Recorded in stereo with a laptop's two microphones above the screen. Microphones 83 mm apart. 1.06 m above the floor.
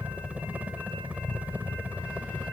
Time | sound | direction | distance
0.0 | a helicopter | 20° right (ahead or behind) | ?